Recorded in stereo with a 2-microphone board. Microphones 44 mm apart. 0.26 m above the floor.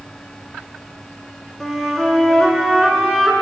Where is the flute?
10° left (ahead or behind), 0.8 m.